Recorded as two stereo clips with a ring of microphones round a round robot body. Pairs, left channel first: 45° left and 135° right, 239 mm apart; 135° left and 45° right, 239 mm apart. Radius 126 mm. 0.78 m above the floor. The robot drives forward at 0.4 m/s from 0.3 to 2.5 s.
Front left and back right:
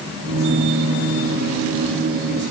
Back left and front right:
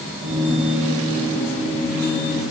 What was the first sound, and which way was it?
Only background noise.